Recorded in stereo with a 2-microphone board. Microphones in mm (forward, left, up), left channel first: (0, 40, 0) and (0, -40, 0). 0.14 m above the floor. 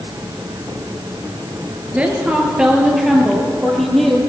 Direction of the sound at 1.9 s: 15° right (ahead or behind).